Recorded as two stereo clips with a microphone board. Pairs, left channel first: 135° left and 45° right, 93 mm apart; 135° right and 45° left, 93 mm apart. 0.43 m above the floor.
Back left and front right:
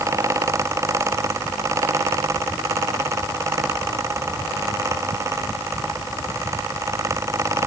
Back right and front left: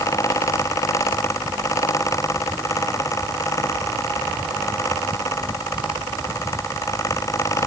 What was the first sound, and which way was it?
Only background noise.